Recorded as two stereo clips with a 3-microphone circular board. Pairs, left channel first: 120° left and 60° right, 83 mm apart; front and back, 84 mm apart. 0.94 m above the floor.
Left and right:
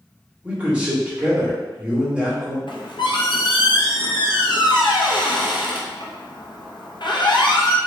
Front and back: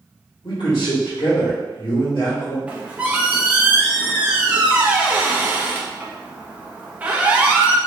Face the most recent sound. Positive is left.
turn(degrees=110)